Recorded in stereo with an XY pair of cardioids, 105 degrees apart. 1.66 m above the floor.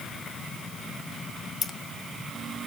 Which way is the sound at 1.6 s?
45° left.